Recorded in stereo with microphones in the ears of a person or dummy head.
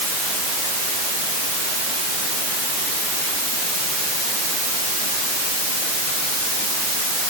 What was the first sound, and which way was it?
Only background noise.